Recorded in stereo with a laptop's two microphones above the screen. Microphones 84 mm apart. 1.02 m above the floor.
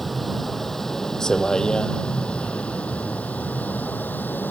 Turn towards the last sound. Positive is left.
turn(degrees=25)  # may be behind; listen again after turning